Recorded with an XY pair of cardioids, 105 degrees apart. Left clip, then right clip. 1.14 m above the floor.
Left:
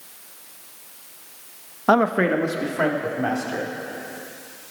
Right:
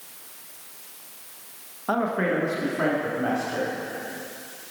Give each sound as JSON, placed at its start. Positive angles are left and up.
{"t": 1.9, "sound": "a man speaking", "azimuth_deg": 60, "distance_m": 0.6}